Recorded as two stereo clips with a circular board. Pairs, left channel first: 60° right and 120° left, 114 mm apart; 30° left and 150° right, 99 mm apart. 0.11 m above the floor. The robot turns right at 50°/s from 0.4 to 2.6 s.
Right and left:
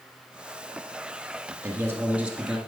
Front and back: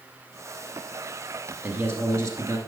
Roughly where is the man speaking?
Behind.